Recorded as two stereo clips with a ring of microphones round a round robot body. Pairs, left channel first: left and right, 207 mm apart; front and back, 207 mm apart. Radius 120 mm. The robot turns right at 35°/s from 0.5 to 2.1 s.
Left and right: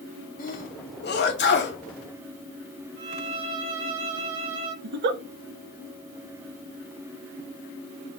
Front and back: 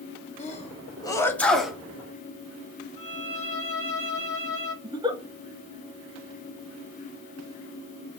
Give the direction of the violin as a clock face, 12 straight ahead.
2 o'clock.